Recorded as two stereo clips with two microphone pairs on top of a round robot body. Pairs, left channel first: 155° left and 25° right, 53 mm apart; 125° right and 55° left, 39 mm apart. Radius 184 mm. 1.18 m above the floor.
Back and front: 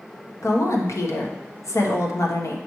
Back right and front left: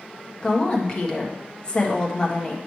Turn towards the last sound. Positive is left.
turn(degrees=170)